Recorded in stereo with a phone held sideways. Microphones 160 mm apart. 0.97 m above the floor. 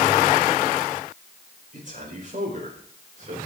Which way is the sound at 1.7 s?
55° right (ahead or behind).